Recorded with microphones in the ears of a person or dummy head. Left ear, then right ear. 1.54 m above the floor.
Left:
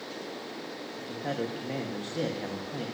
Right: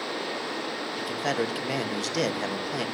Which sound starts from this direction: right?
A man speaking, at 1.0 s.